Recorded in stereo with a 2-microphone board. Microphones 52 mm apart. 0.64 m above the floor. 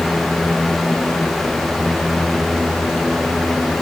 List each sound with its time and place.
Only background noise.